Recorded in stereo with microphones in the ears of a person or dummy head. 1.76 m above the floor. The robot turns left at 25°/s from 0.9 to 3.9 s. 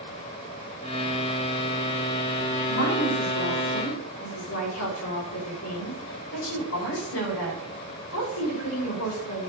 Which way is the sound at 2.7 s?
110° left.